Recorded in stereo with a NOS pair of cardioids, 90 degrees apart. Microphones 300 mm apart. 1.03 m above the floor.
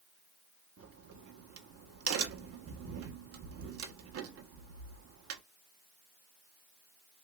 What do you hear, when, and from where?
0.8 s a crack: 50° right, 0.9 m